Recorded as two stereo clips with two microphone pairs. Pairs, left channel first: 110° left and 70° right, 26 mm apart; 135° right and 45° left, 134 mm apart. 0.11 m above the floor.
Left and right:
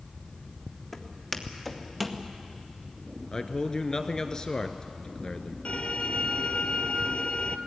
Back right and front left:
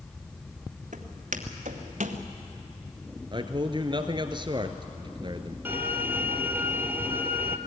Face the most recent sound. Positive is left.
turn(degrees=120)